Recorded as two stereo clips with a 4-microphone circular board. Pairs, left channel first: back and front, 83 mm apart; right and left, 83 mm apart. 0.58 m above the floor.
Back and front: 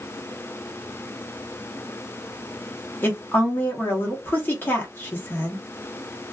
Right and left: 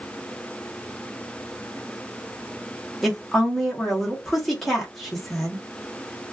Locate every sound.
3.0 s a woman speaking: straight behind, 0.9 m